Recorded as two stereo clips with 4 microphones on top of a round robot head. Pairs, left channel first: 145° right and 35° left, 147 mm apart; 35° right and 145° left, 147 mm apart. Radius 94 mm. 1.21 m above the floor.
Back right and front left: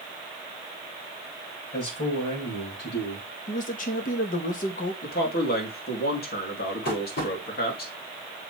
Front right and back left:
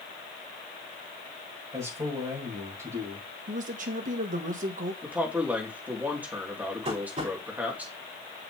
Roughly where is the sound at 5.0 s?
Behind right.